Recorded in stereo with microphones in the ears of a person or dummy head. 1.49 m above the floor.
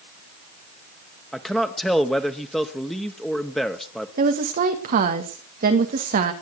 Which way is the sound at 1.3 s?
5° left (ahead or behind).